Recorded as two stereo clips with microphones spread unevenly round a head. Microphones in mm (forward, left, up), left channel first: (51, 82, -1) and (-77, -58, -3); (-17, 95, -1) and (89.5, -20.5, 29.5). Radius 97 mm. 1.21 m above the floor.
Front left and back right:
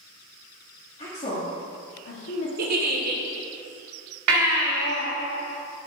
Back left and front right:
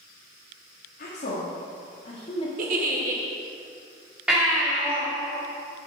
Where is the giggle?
95° right, 1.2 m.